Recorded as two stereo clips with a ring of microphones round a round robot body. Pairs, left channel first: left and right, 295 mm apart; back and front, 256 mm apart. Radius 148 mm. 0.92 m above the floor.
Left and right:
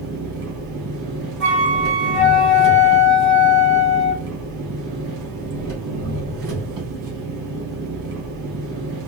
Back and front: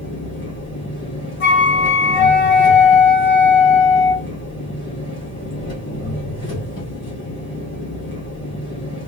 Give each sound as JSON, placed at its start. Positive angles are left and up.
{"t": 0.0, "sound": "an engine running", "azimuth_deg": -125, "distance_m": 1.9}
{"t": 1.4, "sound": "a flute", "azimuth_deg": 180, "distance_m": 2.0}